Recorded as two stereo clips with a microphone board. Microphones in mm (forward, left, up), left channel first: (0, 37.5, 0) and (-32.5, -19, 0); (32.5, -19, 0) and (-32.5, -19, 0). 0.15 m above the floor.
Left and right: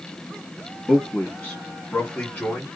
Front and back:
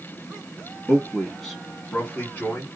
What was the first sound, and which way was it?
A man speaking, 120° left.